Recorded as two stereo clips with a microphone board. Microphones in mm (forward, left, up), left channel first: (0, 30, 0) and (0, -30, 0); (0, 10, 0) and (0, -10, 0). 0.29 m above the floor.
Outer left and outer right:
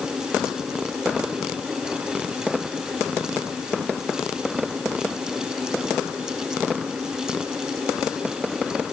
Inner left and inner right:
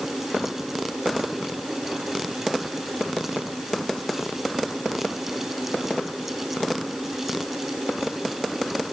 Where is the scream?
I don't hear a scream.